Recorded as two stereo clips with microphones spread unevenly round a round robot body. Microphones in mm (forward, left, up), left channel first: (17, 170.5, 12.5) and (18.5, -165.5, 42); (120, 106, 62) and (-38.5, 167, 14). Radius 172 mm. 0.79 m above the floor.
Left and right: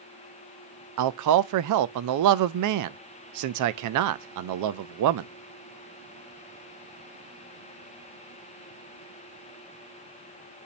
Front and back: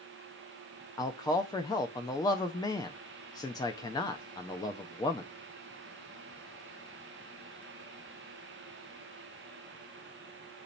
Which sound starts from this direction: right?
A man speaking, at 1.0 s.